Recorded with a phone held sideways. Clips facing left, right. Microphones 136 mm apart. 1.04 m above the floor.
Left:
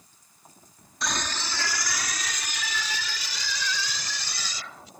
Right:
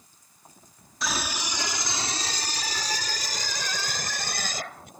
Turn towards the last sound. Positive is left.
turn(degrees=-55)  # may be behind; listen again after turning